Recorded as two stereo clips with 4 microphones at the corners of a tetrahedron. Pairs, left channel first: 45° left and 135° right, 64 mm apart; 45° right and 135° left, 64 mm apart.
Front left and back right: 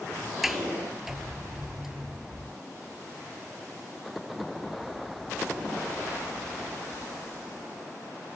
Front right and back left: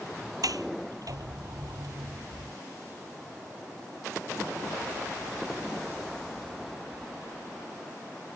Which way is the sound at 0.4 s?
140° left.